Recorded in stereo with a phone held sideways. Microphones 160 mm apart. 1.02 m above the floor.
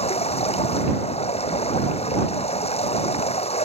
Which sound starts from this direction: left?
Running water, at 0.0 s.